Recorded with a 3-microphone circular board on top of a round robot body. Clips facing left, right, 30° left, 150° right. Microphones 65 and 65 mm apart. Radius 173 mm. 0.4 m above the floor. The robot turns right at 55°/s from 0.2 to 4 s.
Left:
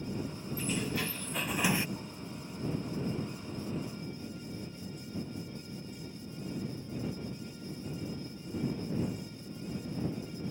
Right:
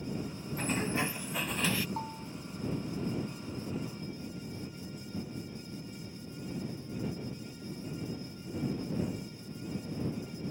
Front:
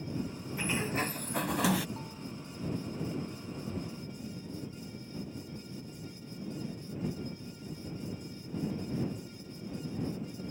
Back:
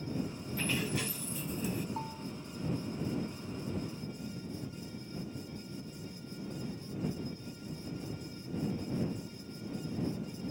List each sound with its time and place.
0.6 s a sliding door: 50° right; by 1.9 s 25° left
2.0 s a bell: 95° right; by 2.3 s 75° right